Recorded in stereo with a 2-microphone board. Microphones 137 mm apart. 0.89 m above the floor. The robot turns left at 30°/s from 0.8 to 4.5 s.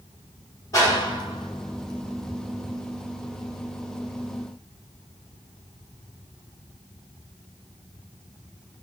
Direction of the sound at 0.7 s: 25° left (ahead or behind).